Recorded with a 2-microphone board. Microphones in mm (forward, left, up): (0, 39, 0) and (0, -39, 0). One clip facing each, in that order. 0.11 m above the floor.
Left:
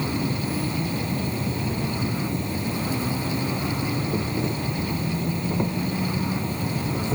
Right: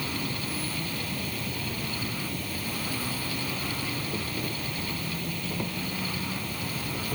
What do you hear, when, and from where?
0.0 s an insect: 25° left (ahead or behind)